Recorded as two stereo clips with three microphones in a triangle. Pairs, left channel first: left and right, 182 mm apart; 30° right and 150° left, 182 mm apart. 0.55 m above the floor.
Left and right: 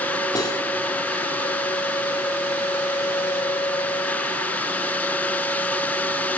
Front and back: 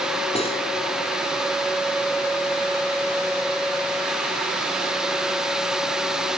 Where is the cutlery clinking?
25° left, 3 m.